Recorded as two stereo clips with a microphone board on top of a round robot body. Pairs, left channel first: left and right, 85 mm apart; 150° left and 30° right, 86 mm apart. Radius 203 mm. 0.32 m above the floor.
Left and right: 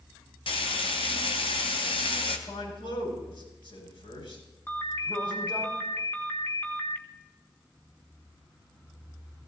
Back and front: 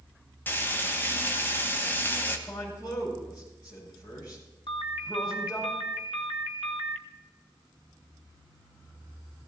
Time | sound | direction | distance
0.5 | frying | 80° left | 1.6 m
2.5 | a man speaking | 100° left | 7 m
4.7 | a ringtone | 155° left | 1.7 m